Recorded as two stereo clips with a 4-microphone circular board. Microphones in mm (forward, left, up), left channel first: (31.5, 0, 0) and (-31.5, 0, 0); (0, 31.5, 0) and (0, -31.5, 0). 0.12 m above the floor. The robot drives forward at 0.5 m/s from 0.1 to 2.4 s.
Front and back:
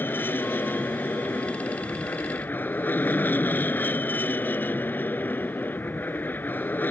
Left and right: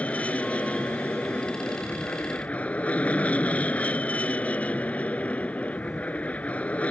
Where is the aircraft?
35° left; by 6.9 s 40° left.